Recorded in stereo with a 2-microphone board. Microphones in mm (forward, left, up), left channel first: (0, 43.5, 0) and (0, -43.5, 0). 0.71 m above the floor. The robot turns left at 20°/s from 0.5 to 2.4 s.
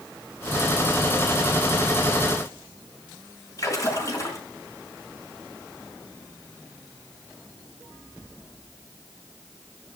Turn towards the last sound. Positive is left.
turn(degrees=40)  # may be behind; listen again after turning